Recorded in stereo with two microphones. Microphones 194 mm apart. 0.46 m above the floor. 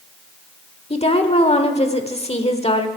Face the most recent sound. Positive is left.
turn(degrees=30)  # may be behind; listen again after turning